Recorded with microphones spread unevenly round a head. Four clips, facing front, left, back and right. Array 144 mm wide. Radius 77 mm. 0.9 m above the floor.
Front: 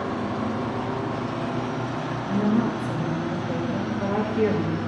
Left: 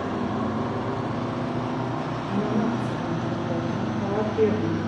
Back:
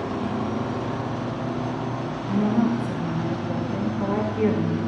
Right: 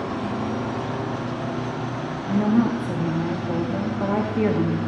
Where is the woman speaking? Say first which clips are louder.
Right 6 dB, back 1 dB; 75° right, 1.7 m.